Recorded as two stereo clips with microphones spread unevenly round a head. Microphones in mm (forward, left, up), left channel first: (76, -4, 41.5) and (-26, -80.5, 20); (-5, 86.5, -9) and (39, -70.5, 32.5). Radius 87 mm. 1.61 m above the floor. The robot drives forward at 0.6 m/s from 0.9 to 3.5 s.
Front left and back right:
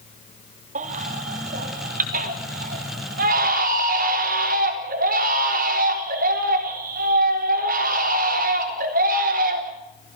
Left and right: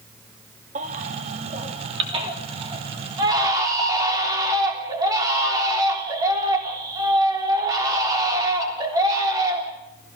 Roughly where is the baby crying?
Behind right.